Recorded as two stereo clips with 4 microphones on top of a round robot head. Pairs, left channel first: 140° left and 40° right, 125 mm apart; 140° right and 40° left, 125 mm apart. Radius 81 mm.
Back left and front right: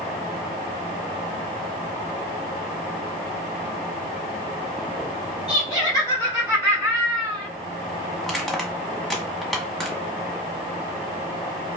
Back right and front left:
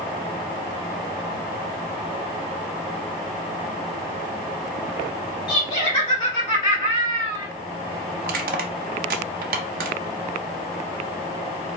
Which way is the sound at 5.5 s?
175° right.